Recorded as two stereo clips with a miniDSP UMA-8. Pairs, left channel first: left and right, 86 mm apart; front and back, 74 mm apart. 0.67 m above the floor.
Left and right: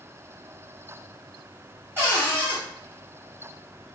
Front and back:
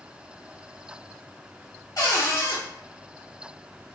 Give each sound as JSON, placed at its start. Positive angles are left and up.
{"t": 2.0, "sound": "a cupboard door", "azimuth_deg": -30, "distance_m": 1.2}